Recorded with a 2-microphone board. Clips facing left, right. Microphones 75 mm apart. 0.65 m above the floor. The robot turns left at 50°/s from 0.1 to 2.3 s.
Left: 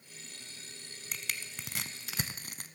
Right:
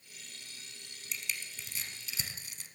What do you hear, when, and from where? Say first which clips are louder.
1.1 s crushing: left 1 dB; 55° left (ahead or behind), 1.1 m